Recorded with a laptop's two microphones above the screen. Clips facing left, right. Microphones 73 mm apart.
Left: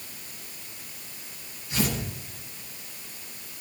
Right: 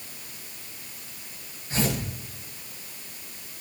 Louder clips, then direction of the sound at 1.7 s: Right 1 dB; 30° right (ahead or behind).